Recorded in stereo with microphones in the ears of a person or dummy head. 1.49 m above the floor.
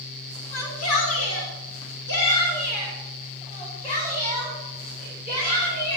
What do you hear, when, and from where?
0.5 s a shout: 85° left, 3 m; by 6.0 s 25° left (ahead or behind), 8 m